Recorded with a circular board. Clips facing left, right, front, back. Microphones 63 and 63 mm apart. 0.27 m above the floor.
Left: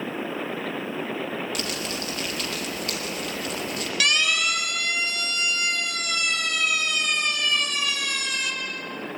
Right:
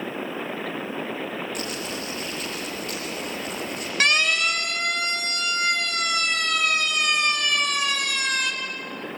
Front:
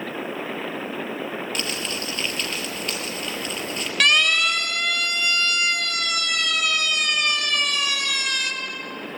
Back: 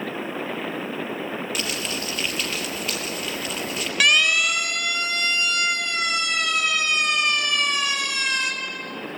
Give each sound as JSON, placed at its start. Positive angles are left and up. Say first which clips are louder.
{"t": 1.6, "sound": "crumpling", "louder": "even, even", "azimuth_deg": 95, "distance_m": 3.0}
{"t": 4.0, "sound": "a siren", "louder": "right 3 dB, even", "azimuth_deg": -100, "distance_m": 2.0}